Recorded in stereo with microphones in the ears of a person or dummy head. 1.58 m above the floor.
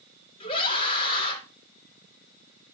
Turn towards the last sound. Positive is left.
turn(degrees=30)  # may be behind; listen again after turning